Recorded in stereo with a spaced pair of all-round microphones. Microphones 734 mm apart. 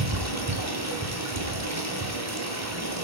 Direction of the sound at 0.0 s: 20° right (ahead or behind).